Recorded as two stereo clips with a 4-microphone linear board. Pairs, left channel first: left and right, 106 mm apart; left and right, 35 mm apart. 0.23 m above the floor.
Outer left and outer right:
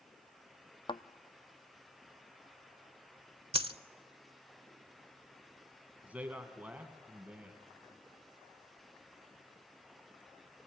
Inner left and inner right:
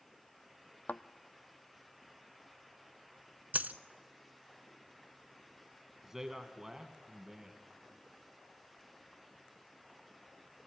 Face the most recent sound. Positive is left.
turn(degrees=-15)  # may be behind; listen again after turning